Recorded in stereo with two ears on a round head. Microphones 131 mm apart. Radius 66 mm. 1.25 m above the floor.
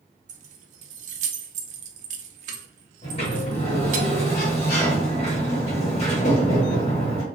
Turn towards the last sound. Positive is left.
turn(degrees=45)  # may be behind; listen again after turning